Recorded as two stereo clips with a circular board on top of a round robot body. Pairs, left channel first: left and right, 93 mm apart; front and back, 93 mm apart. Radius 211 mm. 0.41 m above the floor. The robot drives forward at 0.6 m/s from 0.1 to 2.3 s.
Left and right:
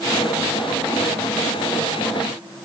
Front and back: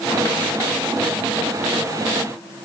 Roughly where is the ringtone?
No ringtone in this recording.